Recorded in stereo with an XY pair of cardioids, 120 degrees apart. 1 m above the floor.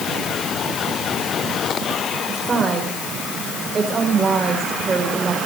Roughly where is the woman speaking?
Ahead right.